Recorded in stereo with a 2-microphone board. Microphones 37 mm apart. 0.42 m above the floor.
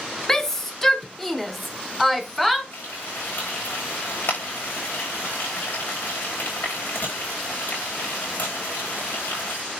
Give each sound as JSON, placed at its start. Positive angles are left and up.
{"t": 0.3, "sound": "a shout", "side_deg": 10, "distance_m": 1.1}
{"t": 2.7, "sound": "frying", "side_deg": 65, "distance_m": 6.5}